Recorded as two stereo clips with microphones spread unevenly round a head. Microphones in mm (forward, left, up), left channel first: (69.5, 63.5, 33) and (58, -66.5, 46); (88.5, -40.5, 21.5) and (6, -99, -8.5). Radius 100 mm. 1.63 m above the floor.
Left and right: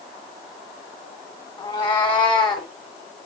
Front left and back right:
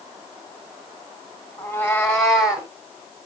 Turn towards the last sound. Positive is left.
turn(degrees=105)